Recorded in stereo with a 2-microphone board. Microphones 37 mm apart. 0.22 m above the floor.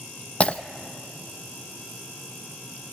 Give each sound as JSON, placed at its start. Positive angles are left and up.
{"t": 0.4, "sound": "breaking glass", "side_deg": 35, "distance_m": 0.6}